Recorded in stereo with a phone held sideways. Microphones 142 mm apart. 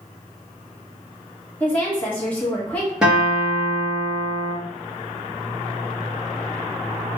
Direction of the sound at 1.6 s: 10° left (ahead or behind).